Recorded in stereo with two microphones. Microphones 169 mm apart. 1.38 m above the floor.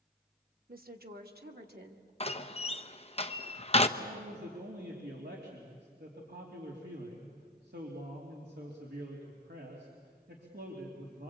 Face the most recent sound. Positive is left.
turn(degrees=-80)